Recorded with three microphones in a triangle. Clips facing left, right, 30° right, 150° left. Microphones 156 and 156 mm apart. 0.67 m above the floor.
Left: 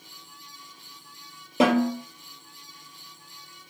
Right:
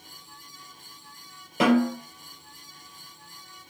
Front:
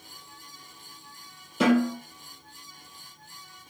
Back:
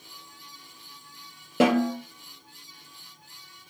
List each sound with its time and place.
1.6 s a snare drum: 155° left, 2.5 m